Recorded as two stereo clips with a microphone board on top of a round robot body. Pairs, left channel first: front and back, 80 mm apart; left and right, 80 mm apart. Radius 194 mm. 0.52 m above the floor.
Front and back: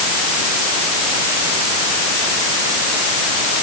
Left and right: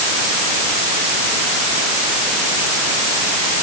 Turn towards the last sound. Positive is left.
No sound to turn to.